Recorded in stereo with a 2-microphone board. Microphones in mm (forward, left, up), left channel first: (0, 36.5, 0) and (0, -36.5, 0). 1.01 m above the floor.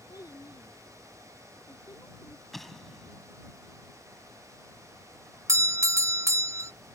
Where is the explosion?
5° left (ahead or behind).